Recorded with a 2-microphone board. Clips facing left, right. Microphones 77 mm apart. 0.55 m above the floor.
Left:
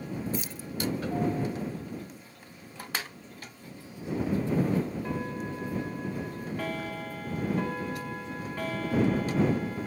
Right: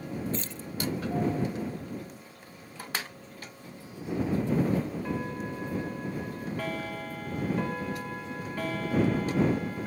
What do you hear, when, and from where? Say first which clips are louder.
0.3 s keys jangling: even; 10° left (ahead or behind)